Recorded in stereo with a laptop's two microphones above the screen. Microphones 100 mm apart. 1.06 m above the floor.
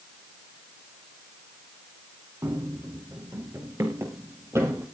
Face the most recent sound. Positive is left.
turn(degrees=-25)  # may be behind; listen again after turning